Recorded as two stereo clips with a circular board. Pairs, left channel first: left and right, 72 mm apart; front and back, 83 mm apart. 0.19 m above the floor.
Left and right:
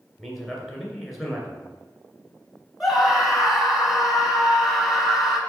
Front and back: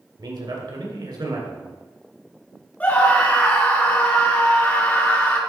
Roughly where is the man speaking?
Behind.